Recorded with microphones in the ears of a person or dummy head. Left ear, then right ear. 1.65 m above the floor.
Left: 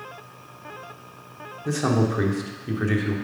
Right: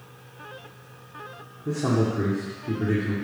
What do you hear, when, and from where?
1.6 s a man speaking: 50° left (ahead or behind), 1.1 m